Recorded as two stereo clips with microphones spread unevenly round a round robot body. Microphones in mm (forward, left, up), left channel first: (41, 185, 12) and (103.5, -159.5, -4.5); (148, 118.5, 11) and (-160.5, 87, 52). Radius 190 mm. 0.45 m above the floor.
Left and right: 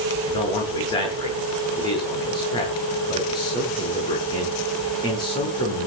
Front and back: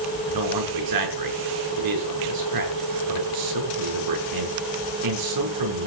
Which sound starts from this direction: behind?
A man speaking, at 0.3 s.